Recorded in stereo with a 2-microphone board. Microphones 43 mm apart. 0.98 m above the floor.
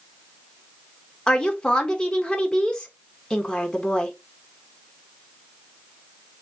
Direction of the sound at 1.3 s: 20° left (ahead or behind).